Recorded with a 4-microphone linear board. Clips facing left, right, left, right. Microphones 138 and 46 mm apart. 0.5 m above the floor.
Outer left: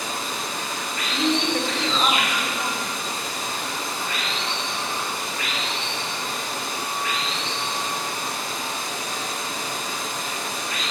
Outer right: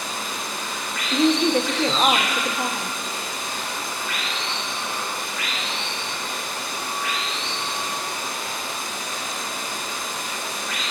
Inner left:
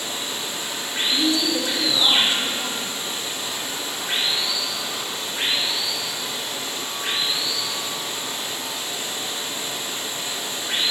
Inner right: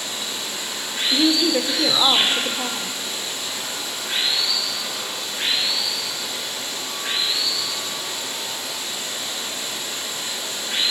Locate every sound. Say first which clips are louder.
0.0 s running water: outer left 1 dB, even; 35° left (ahead or behind), 8 m
1.1 s a woman speaking: outer right 5 dB, inner right 4 dB; 40° right (ahead or behind), 1.5 m